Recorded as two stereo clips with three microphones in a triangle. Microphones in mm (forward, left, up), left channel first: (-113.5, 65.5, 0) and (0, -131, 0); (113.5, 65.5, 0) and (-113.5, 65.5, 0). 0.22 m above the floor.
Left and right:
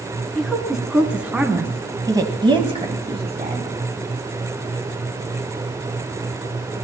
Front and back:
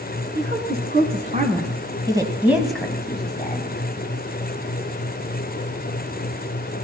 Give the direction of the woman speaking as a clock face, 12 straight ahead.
5 o'clock.